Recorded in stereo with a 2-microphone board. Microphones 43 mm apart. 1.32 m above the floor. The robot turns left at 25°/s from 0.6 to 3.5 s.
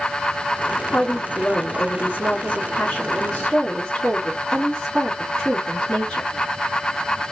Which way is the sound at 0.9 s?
70° left.